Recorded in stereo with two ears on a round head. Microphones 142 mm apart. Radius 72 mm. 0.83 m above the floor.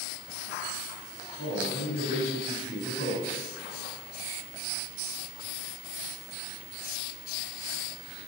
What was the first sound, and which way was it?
A man speaking, 70° left (ahead or behind).